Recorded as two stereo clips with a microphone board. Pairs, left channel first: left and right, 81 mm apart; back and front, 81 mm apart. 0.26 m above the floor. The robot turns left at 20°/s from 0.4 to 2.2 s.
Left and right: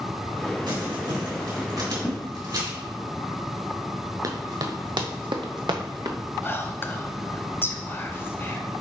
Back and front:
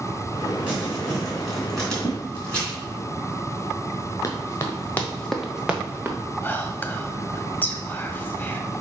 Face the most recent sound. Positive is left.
turn(degrees=130)